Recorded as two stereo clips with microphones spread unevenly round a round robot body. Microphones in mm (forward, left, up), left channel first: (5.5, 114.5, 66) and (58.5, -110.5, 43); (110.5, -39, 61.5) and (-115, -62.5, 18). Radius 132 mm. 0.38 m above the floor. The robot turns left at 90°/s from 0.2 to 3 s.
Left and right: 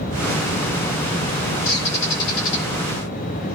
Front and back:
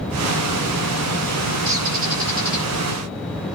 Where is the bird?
145° left, 3.5 m; by 2.7 s 55° left, 3.5 m.